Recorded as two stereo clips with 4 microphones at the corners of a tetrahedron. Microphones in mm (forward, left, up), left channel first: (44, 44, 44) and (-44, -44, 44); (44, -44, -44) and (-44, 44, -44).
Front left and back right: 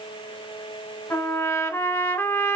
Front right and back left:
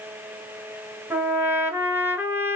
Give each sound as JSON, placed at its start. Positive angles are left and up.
{"t": 1.1, "sound": "a trumpet", "azimuth_deg": 85, "distance_m": 0.8}